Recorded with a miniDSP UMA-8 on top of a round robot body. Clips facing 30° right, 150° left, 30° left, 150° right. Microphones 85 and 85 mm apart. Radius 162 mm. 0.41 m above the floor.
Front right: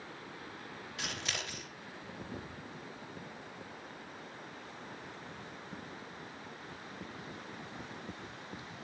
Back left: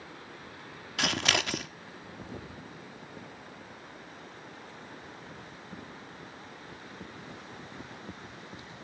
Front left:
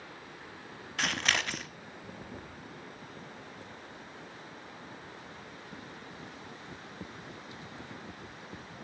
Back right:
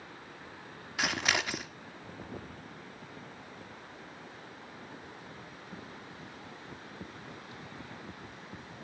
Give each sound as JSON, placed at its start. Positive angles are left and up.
{"t": 1.0, "sound": "scissors", "azimuth_deg": 130, "distance_m": 0.6}